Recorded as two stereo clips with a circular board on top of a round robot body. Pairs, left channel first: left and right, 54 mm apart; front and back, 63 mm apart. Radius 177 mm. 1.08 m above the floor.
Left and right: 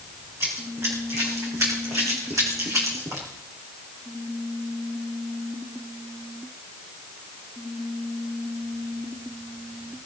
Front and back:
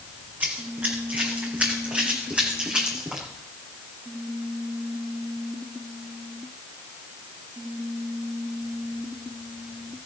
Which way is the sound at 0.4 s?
125° right.